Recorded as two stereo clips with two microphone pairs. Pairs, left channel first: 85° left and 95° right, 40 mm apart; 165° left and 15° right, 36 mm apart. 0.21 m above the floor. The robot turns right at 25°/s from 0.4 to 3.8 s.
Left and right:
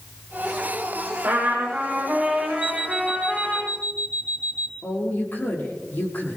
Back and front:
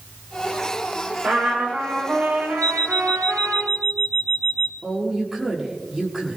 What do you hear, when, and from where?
1.2 s a trumpet: 50° right, 7 m; by 3.6 s 10° left, 7 m
2.6 s an alarm clock: 175° right, 3 m; by 4.7 s 145° right, 3 m
4.8 s a woman speaking: 65° left, 4.5 m